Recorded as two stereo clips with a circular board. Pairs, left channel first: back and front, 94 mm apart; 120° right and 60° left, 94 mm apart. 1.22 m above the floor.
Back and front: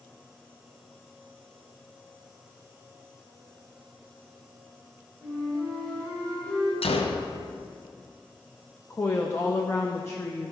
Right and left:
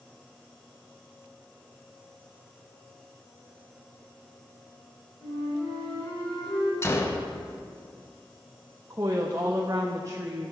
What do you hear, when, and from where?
5.2 s a flute: 110° right, 2.5 m
6.8 s a gunshot: straight behind, 0.7 m
8.9 s a woman speaking: 115° left, 0.5 m